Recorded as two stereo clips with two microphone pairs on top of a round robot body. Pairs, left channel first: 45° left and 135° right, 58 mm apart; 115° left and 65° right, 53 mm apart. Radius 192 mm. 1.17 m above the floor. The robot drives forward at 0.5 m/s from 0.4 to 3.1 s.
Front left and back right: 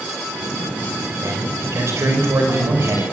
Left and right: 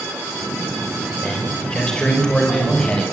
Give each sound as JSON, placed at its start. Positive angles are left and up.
{"t": 1.2, "sound": "a man speaking", "azimuth_deg": -175, "distance_m": 5.0}